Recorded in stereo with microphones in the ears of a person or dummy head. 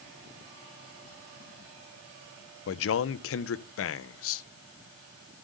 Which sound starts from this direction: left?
A man speaking, at 2.7 s.